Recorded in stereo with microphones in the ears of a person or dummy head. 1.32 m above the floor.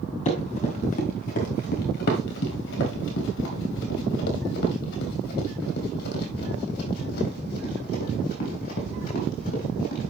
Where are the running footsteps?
30° left (ahead or behind), 2 m; by 10.1 s 50° left (ahead or behind), 5 m.